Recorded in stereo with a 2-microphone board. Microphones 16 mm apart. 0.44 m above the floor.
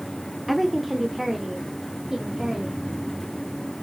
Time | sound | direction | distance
0.5 | a woman speaking | centre (ahead or behind) | 0.8 m